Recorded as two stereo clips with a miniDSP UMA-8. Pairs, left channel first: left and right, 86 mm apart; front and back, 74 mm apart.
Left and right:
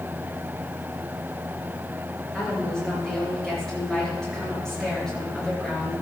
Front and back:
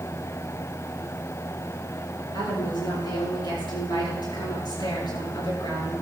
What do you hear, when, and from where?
2.3 s a woman speaking: 10° left, 8.5 m